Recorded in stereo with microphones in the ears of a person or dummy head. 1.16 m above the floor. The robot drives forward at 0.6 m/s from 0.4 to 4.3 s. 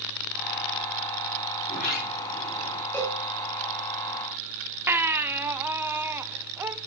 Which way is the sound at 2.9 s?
5° left (ahead or behind).